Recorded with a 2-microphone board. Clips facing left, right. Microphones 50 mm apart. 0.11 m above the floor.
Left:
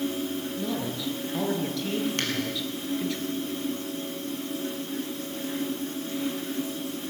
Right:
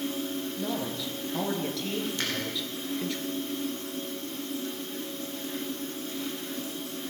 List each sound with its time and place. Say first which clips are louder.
0.6 s a man speaking: left 1 dB; centre (ahead or behind), 1.8 m
2.2 s a finger snap: left 2 dB; 60° left (ahead or behind), 2.5 m